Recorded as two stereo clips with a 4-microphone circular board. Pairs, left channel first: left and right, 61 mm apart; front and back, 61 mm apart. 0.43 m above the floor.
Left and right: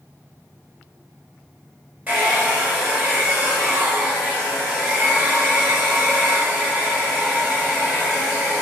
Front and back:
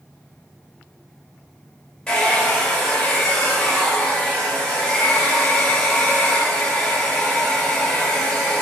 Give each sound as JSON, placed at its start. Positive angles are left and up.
{"t": 2.1, "sound": "a hair dryer", "azimuth_deg": -55, "distance_m": 1.0}